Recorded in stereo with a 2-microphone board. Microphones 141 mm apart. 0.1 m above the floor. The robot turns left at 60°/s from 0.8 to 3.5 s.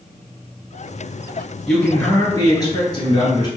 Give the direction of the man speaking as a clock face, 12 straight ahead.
6 o'clock.